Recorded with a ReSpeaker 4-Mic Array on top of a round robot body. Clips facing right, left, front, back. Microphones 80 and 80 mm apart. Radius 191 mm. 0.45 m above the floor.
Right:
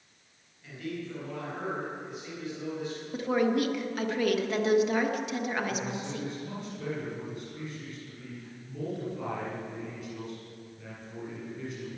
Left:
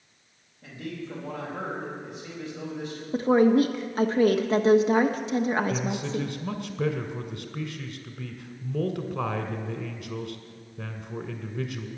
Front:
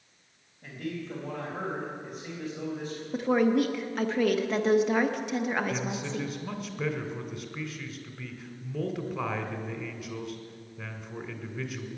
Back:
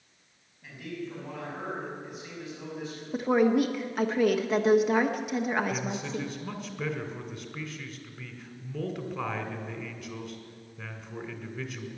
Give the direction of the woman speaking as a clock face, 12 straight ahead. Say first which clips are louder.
Left 7 dB, back 1 dB; 9 o'clock.